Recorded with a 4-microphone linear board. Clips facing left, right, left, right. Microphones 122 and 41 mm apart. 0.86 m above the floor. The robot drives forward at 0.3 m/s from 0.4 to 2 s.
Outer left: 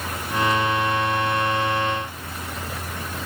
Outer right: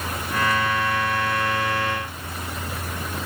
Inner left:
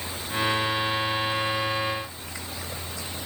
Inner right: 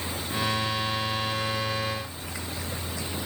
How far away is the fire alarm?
I don't hear a fire alarm.